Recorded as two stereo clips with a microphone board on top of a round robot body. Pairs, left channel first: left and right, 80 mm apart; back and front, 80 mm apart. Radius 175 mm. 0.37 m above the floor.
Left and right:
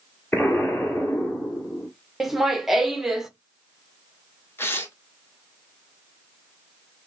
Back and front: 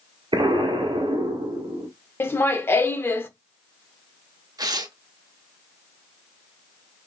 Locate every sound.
0.3 s an explosion: 20° left, 1.8 m
2.2 s laughter: 170° right, 1.1 m
4.6 s tearing paper: 30° left, 1.1 m